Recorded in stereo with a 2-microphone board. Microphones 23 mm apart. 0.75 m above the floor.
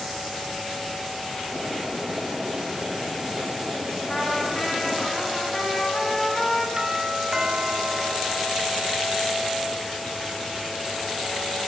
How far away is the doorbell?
About 2.5 m.